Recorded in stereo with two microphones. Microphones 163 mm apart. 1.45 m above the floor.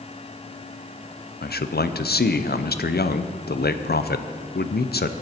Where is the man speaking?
75° left (ahead or behind), 0.6 m.